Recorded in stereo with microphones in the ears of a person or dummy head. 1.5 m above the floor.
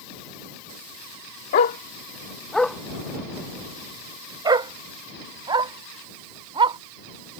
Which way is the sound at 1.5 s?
30° left (ahead or behind).